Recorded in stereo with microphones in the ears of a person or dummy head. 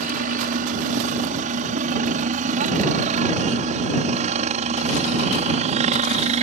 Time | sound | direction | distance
0.0 | a helicopter | 35° right (ahead or behind) | ?